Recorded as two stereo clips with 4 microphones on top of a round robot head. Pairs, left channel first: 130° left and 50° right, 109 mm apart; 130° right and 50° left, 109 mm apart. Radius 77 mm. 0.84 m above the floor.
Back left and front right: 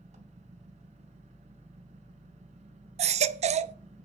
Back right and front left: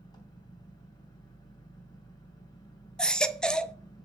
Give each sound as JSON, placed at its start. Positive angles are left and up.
{"t": 0.0, "sound": "an engine running", "azimuth_deg": -75, "distance_m": 3.5}
{"t": 3.0, "sound": "a baby crying", "azimuth_deg": -50, "distance_m": 0.8}